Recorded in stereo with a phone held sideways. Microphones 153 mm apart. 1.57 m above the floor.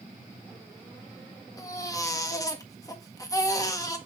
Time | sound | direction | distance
1.6 | a baby crying | 20° left (ahead or behind) | 1.7 m